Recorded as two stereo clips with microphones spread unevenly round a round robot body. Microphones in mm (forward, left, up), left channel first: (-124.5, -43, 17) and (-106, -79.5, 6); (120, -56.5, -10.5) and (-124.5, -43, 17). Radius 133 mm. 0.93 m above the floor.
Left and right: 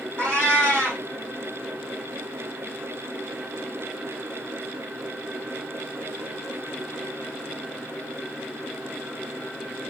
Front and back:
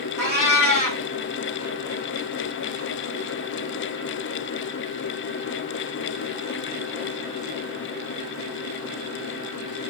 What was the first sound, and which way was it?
A cat meowing, 10° left.